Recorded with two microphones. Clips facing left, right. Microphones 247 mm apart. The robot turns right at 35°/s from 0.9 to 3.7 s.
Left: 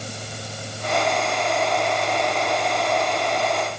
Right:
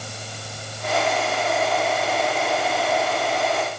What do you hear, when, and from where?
Only background noise.